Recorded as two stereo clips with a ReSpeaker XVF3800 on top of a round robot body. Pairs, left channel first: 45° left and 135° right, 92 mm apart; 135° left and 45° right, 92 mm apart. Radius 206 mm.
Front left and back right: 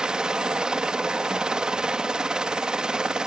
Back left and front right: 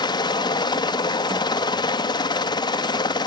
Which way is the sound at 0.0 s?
145° left.